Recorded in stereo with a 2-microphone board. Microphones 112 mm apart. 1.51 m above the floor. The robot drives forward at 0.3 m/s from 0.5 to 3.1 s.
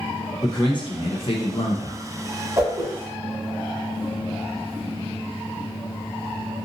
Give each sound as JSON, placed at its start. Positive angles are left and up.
{"t": 0.4, "sound": "a man speaking", "side_deg": 45, "distance_m": 0.7}
{"t": 2.6, "sound": "a whoosh", "side_deg": -25, "distance_m": 0.8}